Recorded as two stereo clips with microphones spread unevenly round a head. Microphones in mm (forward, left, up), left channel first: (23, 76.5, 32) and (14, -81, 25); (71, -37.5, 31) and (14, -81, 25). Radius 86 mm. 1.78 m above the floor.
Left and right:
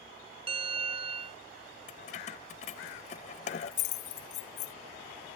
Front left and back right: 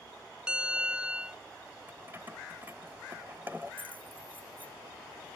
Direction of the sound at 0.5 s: 70° right.